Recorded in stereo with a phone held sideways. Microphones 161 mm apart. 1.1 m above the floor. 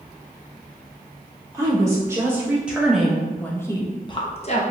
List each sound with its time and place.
1.5 s a woman speaking: 20° right (ahead or behind), 1.7 m; by 4.6 s 50° left (ahead or behind), 0.9 m